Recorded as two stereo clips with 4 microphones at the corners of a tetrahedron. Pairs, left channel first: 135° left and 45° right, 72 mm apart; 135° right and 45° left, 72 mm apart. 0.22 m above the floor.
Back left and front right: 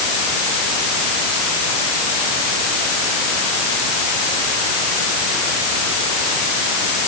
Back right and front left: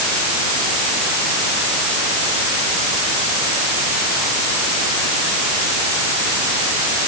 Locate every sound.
Only background noise.